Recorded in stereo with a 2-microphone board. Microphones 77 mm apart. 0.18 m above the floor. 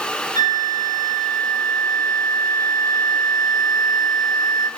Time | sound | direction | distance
0.3 | a flute | 45° left (ahead or behind) | 1.0 m